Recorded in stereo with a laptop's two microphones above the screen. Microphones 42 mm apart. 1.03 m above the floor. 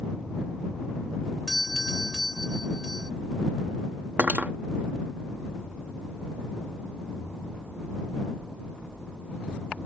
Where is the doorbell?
5° right (ahead or behind).